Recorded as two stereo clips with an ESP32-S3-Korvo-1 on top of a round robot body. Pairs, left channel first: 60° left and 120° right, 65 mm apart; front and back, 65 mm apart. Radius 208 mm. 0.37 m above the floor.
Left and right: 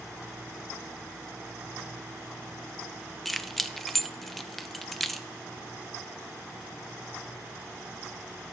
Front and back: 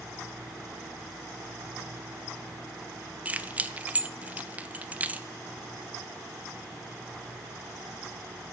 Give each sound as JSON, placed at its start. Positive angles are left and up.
{"t": 3.2, "sound": "keys jangling", "azimuth_deg": 145, "distance_m": 0.7}